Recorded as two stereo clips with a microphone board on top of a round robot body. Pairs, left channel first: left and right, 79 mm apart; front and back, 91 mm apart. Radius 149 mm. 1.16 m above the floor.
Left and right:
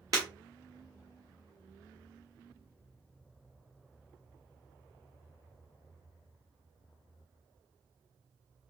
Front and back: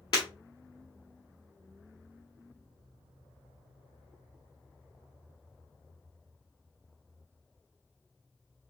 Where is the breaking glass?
45° right, 1.3 m.